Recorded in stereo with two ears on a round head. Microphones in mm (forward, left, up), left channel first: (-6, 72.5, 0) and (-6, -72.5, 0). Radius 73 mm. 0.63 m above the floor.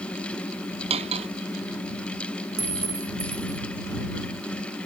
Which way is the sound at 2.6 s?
15° right (ahead or behind).